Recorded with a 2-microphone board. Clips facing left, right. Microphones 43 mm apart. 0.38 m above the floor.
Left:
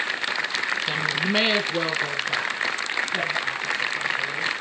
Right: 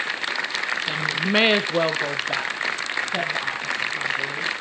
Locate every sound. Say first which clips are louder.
0.9 s a woman speaking: right 2 dB; 5° left (ahead or behind), 0.8 m; by 4.5 s 55° right (ahead or behind), 3.5 m